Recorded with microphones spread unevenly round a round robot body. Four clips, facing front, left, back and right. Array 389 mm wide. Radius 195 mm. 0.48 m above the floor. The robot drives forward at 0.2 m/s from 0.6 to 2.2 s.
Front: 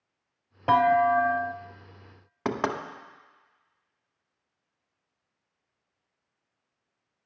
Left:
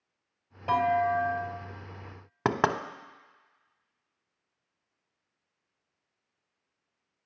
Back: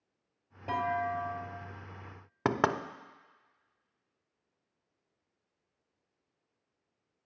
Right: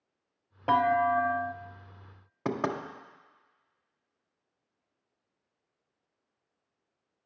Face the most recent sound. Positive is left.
turn(degrees=110)